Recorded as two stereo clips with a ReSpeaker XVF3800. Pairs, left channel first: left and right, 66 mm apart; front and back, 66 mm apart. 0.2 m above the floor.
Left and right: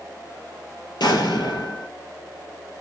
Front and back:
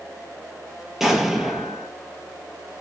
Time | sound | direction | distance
1.0 | an explosion | 95° left | 0.7 m